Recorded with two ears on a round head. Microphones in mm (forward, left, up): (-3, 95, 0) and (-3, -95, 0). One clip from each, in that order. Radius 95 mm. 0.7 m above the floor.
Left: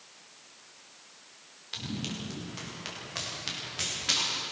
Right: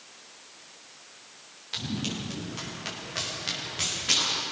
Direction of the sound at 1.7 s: 10° left (ahead or behind).